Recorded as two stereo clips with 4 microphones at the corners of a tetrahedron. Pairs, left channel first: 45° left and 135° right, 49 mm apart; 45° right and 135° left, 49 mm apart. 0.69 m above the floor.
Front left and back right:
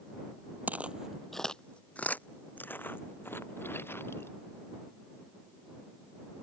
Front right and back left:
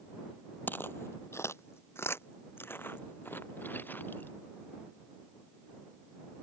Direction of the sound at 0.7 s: 85° right.